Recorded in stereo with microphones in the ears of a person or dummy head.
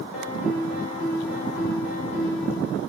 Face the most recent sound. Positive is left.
turn(degrees=45)  # may be behind; listen again after turning